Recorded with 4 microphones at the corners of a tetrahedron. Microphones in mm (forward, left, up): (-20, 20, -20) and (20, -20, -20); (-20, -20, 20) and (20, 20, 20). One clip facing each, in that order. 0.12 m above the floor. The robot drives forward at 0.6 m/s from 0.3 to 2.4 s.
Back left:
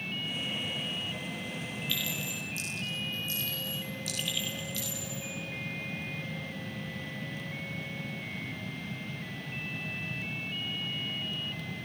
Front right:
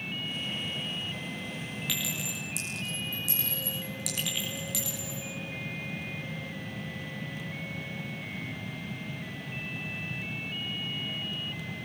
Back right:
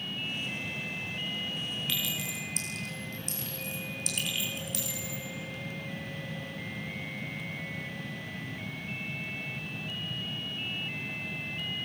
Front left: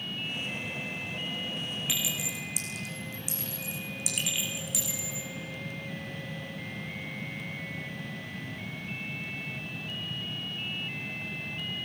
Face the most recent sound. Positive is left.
turn(degrees=-40)